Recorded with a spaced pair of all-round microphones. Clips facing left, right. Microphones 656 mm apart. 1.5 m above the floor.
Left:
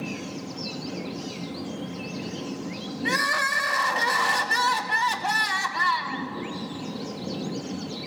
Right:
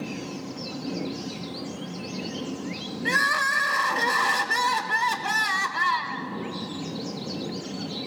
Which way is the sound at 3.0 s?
20° left (ahead or behind).